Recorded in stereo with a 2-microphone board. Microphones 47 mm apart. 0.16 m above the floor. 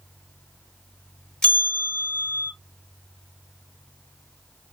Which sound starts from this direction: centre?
A bell, at 1.4 s.